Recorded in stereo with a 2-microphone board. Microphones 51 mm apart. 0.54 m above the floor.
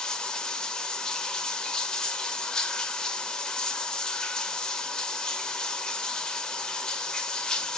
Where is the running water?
15° left (ahead or behind), 1.4 m.